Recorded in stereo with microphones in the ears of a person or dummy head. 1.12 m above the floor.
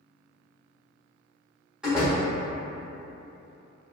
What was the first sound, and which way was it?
A door slam, 5° right (ahead or behind).